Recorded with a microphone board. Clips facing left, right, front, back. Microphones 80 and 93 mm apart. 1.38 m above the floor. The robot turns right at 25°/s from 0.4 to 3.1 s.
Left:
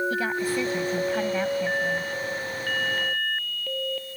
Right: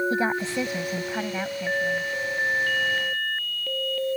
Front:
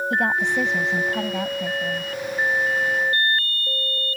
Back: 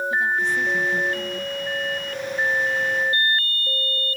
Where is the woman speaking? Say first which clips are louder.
Right 1 dB, front 2 dB; 25° right; by 2.1 s 15° left.